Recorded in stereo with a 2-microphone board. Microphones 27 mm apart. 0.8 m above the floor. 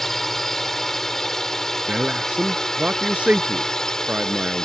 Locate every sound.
0.0 s a drone: 10° left (ahead or behind); by 4.7 s 20° left (ahead or behind)
1.9 s a man speaking: 50° right (ahead or behind)